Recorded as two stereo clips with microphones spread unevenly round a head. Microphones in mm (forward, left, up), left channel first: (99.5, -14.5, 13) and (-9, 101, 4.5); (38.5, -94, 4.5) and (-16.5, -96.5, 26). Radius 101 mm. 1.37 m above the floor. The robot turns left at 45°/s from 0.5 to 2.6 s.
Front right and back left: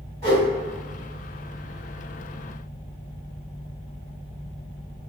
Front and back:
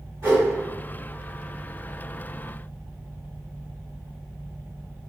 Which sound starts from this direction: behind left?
A whoosh, at 0.2 s.